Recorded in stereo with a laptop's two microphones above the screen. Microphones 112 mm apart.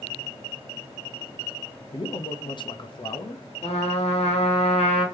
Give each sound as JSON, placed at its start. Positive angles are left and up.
{"t": 1.9, "sound": "a man speaking", "side_deg": 45, "distance_m": 0.6}
{"t": 3.6, "sound": "a trumpet", "side_deg": 65, "distance_m": 1.2}